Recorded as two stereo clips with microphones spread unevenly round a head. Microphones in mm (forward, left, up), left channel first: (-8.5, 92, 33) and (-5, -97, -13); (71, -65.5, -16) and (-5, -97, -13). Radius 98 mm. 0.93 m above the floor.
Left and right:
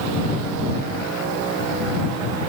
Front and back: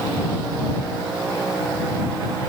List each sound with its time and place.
Only background noise.